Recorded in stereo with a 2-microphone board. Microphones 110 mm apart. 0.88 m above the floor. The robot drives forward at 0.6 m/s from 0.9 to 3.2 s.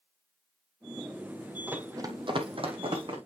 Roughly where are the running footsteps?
Centre.